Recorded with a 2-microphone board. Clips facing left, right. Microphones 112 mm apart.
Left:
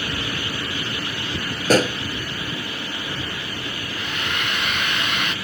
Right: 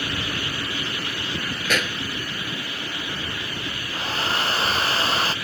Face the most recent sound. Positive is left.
turn(degrees=-35)  # may be behind; listen again after turning